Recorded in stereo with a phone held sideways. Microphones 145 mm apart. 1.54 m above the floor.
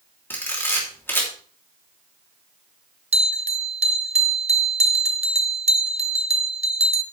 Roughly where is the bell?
Right.